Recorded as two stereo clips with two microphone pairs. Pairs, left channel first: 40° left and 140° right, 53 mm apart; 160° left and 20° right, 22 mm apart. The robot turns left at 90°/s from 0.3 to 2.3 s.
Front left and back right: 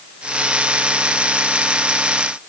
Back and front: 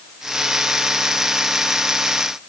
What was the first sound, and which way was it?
Only background noise.